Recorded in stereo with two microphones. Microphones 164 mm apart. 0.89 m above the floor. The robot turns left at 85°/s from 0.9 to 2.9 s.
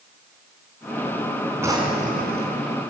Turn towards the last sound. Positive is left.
turn(degrees=-125)